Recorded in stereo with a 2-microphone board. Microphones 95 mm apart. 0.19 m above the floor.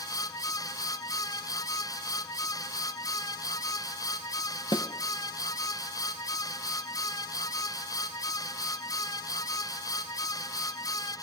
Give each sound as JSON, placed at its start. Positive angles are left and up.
{"t": 4.7, "sound": "a snare drum", "side_deg": 55, "distance_m": 1.3}